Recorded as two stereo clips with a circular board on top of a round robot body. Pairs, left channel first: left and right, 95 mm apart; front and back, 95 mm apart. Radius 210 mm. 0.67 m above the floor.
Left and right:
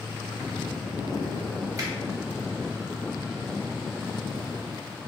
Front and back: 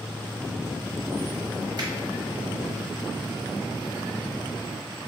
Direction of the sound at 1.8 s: 140° right.